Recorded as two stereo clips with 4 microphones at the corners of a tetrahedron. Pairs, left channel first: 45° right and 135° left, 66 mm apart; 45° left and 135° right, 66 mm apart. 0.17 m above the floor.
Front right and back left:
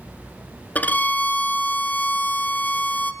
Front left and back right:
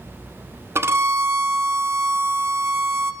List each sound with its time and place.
0.8 s a violin: 100° right, 1.2 m